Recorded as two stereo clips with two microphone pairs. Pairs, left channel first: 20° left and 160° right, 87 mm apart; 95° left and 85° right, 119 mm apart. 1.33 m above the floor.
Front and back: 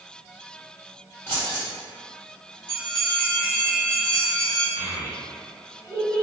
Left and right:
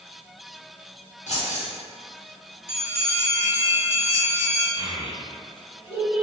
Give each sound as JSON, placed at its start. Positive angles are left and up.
{"t": 1.3, "sound": "keys jangling", "azimuth_deg": 90, "distance_m": 1.4}
{"t": 2.7, "sound": "a bell", "azimuth_deg": -170, "distance_m": 1.6}
{"t": 4.8, "sound": "a child speaking", "azimuth_deg": 135, "distance_m": 1.3}